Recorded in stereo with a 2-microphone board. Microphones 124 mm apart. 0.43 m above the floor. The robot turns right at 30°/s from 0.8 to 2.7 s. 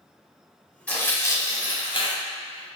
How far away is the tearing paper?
About 0.6 m.